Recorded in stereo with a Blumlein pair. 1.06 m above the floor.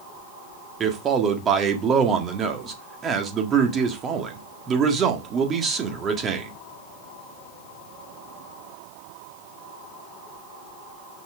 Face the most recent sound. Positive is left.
turn(degrees=-25)